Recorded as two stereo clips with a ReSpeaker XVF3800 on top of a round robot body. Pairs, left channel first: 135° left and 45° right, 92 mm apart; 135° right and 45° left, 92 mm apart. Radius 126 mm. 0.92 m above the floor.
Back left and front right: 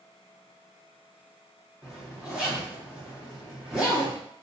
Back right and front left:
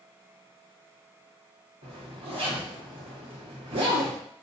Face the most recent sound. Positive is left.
turn(degrees=40)